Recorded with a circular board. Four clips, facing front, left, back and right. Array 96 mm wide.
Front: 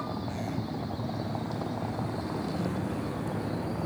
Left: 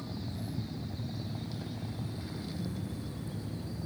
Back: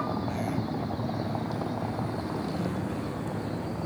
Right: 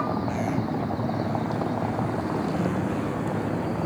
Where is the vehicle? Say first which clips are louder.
Right 15 dB, back 4 dB; 105° right; by 3.9 s 85° right.